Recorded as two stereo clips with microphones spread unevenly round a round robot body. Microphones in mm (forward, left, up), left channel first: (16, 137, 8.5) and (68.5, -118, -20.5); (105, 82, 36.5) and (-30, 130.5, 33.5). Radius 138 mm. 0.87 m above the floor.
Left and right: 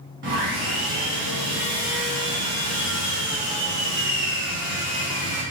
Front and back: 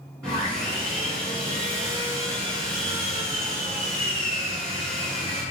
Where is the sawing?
125° right, 1.0 m.